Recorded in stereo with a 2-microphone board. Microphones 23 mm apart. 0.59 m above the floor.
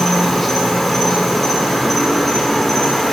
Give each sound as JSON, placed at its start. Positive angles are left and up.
{"t": 0.0, "sound": "an insect", "side_deg": 5, "distance_m": 0.8}